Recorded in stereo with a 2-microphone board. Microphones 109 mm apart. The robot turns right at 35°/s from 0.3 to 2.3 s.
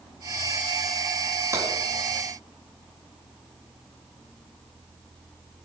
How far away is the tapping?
About 4.5 m.